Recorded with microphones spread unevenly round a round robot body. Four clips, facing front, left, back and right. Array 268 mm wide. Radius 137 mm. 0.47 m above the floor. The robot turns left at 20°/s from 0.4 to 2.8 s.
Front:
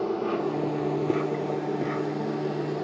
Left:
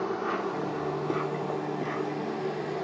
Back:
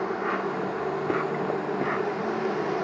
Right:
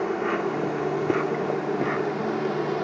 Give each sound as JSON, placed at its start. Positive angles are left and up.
{"t": 0.0, "sound": "an insect", "azimuth_deg": -60, "distance_m": 0.9}